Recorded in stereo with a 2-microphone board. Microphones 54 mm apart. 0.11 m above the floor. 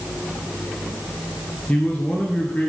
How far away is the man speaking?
About 1.4 m.